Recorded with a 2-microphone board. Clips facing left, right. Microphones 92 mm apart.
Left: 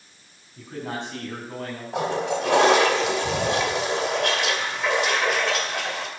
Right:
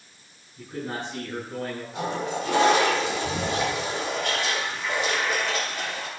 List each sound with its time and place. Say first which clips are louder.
0.6 s a man speaking: left 1 dB; 85° left, 8 m
1.9 s a toilet flushing: left 5 dB; 85° left, 2.5 m